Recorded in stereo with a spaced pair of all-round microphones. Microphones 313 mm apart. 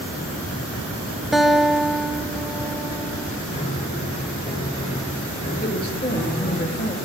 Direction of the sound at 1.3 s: Centre (ahead or behind).